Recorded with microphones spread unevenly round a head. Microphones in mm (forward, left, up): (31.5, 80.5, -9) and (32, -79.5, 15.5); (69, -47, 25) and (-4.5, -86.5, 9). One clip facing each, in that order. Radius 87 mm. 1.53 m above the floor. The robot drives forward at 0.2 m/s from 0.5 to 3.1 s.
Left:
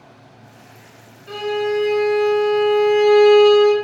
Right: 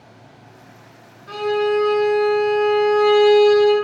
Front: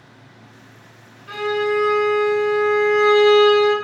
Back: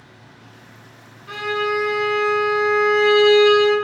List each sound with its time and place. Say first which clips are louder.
1.3 s a violin: right 2 dB, front 2 dB; 145° left, 1.4 m; by 3.7 s 160° left, 1.6 m